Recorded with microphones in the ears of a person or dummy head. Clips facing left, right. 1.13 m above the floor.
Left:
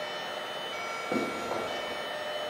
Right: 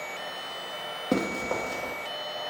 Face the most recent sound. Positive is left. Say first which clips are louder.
# right 4 dB
turn(degrees=-40)  # may be behind; listen again after turning